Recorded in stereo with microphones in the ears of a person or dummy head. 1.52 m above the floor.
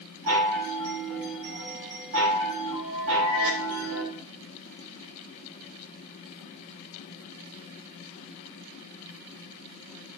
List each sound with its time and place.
0.3 s a chime: 75° right (ahead or behind), 7 m